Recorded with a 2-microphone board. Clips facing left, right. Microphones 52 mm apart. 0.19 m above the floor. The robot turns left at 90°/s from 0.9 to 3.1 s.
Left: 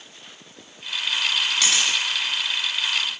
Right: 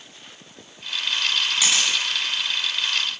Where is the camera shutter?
10° right (ahead or behind), 1.6 m; by 1.9 s 10° left (ahead or behind), 1.6 m.